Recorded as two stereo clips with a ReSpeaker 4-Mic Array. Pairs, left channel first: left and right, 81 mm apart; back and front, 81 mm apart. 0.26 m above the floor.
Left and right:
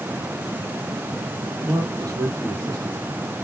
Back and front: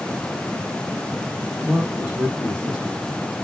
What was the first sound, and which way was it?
A man speaking, 80° right.